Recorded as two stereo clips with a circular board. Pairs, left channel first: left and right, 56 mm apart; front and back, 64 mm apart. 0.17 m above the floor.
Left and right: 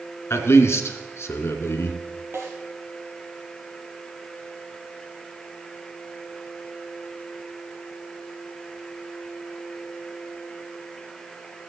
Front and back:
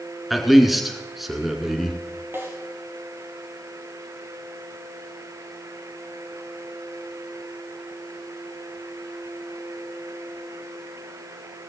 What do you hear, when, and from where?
0.3 s a man speaking: 95° left, 1.7 m
2.3 s a snare drum: 130° right, 3 m